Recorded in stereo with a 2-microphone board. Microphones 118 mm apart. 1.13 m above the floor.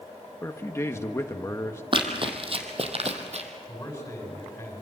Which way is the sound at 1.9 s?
45° right (ahead or behind).